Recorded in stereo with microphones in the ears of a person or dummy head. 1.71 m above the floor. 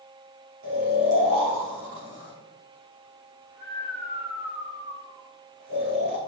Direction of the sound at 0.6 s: 65° right (ahead or behind).